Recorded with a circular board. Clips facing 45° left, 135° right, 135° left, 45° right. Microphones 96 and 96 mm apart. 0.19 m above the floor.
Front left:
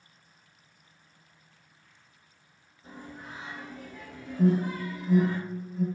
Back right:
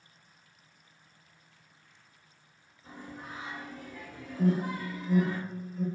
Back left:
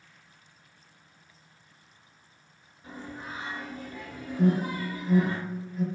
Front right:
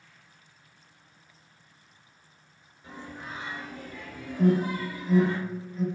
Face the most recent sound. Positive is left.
turn(degrees=75)